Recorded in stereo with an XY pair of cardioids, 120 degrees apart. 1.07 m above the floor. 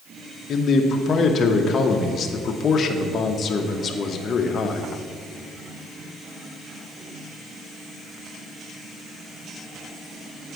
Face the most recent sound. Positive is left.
turn(degrees=40)